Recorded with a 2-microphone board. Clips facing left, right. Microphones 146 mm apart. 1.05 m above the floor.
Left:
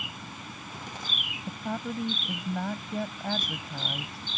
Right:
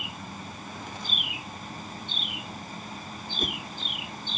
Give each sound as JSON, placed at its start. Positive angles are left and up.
{"t": 1.5, "sound": "a woman speaking", "side_deg": 85}
{"t": 3.4, "sound": "a whoosh", "side_deg": -55}